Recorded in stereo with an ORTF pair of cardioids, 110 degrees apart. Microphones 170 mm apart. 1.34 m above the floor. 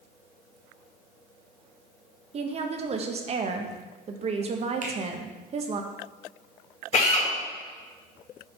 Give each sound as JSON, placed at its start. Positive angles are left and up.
{"t": 2.3, "sound": "a woman speaking", "azimuth_deg": -35, "distance_m": 1.1}
{"t": 4.8, "sound": "a finger snap", "azimuth_deg": -45, "distance_m": 1.7}
{"t": 6.9, "sound": "a drill", "azimuth_deg": 40, "distance_m": 3.5}